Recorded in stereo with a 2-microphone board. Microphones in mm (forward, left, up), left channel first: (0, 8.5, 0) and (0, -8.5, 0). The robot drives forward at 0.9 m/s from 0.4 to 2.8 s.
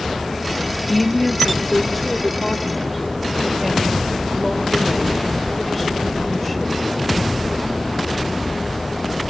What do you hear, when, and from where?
0.9 s a woman speaking: 10° left (ahead or behind), 1.0 m; by 6.8 s 5° left (ahead or behind), 2.5 m